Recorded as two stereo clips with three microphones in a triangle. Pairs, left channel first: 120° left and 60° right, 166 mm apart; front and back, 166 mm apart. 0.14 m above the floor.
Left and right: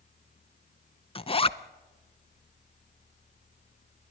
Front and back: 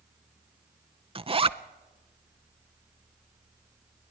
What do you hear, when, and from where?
1.1 s a zipper: 150° left, 0.6 m